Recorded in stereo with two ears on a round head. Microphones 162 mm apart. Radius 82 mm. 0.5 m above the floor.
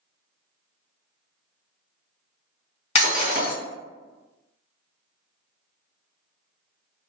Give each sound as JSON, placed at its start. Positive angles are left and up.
{"t": 3.0, "sound": "breaking glass", "side_deg": 40, "distance_m": 1.9}